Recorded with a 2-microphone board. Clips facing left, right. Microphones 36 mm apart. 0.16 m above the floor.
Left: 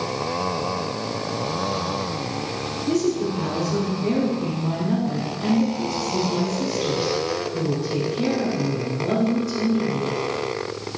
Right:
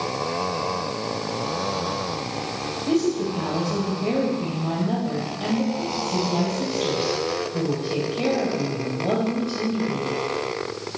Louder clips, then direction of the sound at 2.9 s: Even; 45° right (ahead or behind).